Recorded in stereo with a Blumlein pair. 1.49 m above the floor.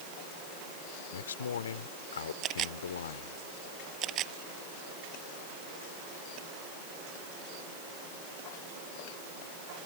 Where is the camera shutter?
30° right.